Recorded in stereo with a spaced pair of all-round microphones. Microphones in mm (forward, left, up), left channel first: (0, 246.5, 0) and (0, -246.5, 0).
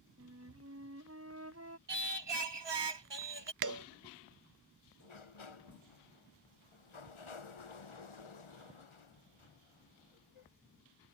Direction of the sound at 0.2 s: 30° right (ahead or behind).